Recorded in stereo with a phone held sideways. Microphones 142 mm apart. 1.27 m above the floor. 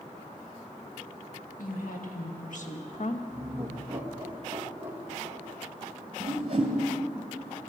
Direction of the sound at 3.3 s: 15° right (ahead or behind).